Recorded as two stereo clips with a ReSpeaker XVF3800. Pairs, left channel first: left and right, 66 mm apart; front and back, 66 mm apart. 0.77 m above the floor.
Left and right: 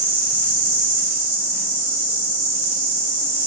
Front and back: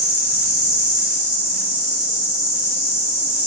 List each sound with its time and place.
0.0 s an insect: 130° left, 1.3 m